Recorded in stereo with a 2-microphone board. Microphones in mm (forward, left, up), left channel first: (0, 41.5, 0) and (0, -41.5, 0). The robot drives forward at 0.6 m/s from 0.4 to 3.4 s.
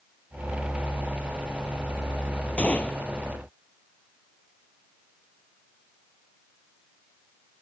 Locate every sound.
2.6 s a gunshot: 15° left (ahead or behind)